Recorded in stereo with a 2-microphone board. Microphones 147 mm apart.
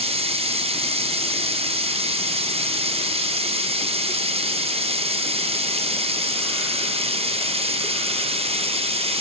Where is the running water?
40° right (ahead or behind), 0.9 m.